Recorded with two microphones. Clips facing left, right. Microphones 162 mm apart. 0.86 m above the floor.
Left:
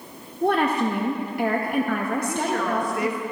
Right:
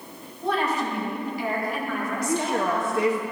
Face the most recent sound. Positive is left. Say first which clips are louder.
# right 1 dB
turn(degrees=-25)  # may be behind; listen again after turning